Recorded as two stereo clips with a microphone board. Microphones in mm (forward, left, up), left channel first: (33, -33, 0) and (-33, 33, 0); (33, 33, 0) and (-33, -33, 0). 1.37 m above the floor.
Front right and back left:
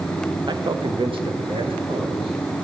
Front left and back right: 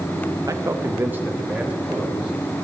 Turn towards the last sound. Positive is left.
turn(degrees=145)